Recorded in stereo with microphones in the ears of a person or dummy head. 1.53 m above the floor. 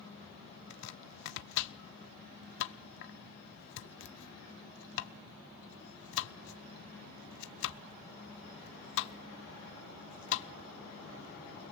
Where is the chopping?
65° left (ahead or behind), 1.0 m.